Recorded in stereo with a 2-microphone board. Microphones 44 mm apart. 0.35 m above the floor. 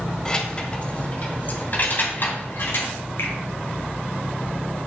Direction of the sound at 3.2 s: 80° left.